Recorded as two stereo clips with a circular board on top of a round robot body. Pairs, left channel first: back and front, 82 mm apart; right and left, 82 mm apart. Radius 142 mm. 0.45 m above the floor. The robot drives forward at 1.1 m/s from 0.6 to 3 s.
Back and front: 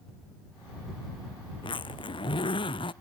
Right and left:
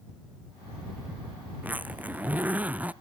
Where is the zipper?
160° left; by 2.9 s 165° left.